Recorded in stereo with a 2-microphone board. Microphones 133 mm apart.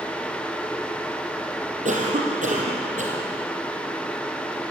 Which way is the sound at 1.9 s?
70° right (ahead or behind).